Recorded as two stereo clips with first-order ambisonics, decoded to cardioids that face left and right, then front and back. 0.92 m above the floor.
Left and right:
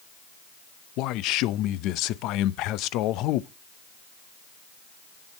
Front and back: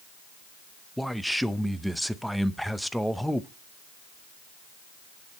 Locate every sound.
1.0 s a man speaking: 90° left, 0.5 m